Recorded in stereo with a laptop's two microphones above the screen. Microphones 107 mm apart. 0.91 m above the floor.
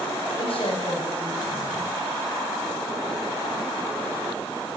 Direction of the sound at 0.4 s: 65° left (ahead or behind).